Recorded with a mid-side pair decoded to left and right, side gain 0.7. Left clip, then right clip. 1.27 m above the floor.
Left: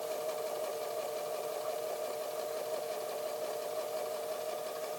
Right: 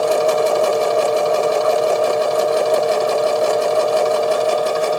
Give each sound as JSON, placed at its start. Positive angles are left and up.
{"t": 0.0, "sound": "a machine running", "azimuth_deg": -65}